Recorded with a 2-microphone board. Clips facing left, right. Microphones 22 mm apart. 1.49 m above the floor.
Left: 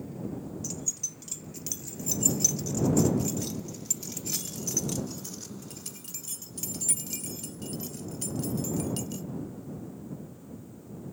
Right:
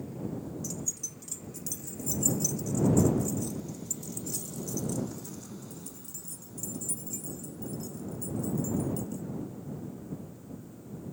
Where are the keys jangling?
25° left (ahead or behind); by 9.2 s 75° left (ahead or behind).